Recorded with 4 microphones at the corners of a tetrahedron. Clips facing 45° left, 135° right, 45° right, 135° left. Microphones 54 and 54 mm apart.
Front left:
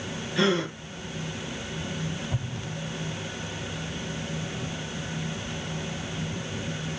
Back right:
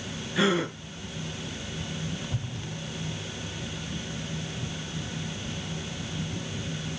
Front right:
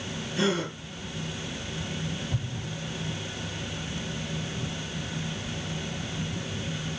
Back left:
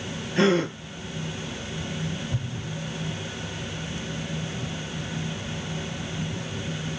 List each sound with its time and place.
0.4 s a gasp: 145° left, 2 m
2.3 s an explosion: 45° left, 1.4 m